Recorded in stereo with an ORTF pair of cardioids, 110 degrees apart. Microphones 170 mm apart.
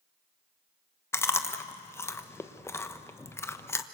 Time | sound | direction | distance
1.1 | chewing | 15° left | 1.1 m